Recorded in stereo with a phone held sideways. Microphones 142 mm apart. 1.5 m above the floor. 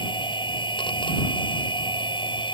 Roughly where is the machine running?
Left.